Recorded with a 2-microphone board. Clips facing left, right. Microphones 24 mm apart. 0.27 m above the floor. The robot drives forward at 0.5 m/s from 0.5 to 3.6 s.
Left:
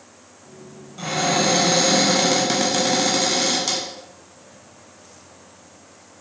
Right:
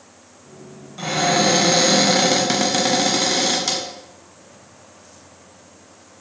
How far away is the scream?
I don't hear a scream.